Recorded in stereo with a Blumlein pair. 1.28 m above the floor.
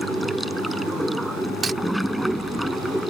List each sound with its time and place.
0.0 s running water: straight ahead
1.6 s cutlery clinking: 15° right